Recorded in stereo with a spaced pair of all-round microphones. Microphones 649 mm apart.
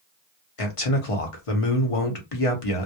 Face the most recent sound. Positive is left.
turn(degrees=55)  # may be behind; listen again after turning